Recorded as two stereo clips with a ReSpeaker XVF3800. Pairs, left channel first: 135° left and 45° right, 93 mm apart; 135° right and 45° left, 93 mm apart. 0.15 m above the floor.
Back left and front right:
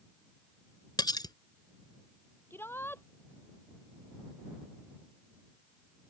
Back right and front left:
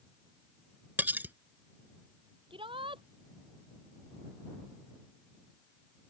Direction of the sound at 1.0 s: 110° left.